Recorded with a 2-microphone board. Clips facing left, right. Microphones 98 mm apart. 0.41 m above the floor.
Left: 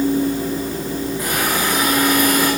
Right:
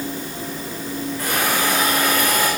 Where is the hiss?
20° left (ahead or behind), 7 m.